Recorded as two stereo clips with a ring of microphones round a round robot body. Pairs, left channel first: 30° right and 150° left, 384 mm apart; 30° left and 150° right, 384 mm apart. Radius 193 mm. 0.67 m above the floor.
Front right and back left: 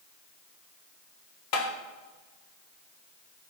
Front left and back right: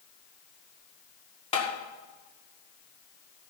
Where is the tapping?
45° right, 1.8 m.